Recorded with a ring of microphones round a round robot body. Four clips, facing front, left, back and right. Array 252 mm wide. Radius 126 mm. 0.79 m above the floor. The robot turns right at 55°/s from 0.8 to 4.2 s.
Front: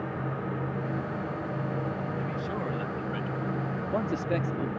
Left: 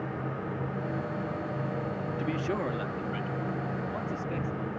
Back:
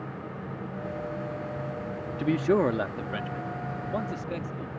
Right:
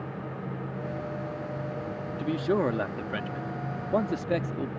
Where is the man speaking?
175° right; by 4.7 s 65° right.